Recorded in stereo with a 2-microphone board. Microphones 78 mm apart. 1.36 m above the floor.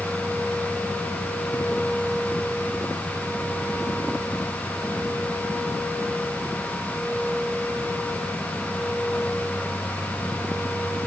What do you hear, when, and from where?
Only background noise.